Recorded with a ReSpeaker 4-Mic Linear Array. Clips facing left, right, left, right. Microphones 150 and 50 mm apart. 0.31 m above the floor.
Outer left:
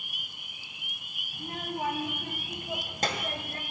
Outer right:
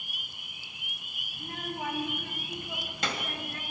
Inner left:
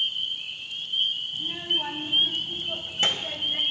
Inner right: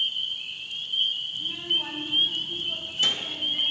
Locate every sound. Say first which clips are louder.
1.3 s a child speaking: outer left 2 dB, even; 35° left (ahead or behind), 1.9 m; by 3.6 s 40° left (ahead or behind), 1.2 m